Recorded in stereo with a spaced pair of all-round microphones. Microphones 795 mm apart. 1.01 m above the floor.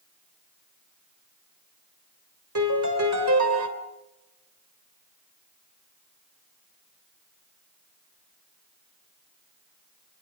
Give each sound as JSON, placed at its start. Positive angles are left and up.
{"t": 2.5, "sound": "a piano", "side_deg": -20, "distance_m": 3.0}